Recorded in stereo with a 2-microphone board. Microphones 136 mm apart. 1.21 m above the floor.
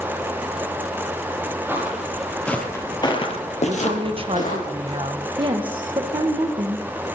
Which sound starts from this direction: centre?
Footsteps, at 1.7 s.